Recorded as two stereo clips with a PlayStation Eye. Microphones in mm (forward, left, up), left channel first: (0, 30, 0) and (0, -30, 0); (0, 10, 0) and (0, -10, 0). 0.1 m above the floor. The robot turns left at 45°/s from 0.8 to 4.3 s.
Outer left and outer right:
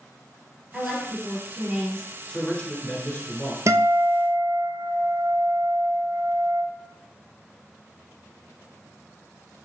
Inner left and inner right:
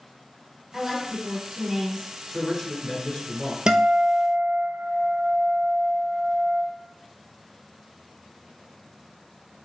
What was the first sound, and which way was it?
A woman speaking, straight ahead.